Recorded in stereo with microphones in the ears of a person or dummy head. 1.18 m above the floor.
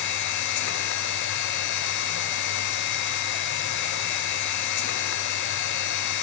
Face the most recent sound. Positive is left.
turn(degrees=55)  # may be behind; listen again after turning